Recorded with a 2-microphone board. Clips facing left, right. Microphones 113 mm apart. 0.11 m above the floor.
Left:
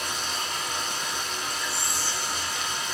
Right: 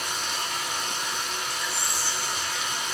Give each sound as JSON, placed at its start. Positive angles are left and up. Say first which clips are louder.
{"t": 0.0, "sound": "running water", "louder": "even", "side_deg": 5, "distance_m": 1.3}
{"t": 1.7, "sound": "whispering", "louder": "even", "side_deg": 25, "distance_m": 1.8}